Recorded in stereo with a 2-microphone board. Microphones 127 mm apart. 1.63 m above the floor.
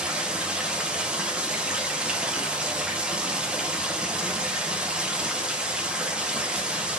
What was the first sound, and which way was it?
Running water, 5° right (ahead or behind).